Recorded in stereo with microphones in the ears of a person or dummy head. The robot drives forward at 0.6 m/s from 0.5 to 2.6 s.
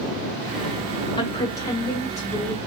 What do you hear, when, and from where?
1.2 s a woman speaking: 25° left (ahead or behind), 0.6 m; by 2.6 s 10° left (ahead or behind), 1.4 m